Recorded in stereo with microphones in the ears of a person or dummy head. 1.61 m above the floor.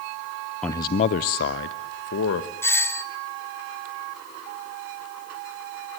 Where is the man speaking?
10° left (ahead or behind), 0.6 m; by 2.5 s 65° left (ahead or behind), 1.5 m.